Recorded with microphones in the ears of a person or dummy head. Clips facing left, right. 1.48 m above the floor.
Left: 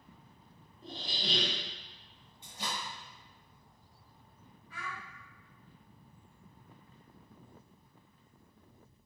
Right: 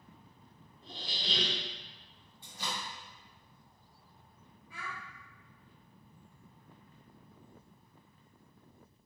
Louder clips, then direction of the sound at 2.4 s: Left 1 dB; 20° left (ahead or behind).